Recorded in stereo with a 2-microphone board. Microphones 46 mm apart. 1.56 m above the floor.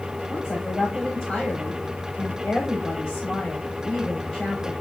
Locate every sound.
0.3 s a woman speaking: centre (ahead or behind), 3.5 m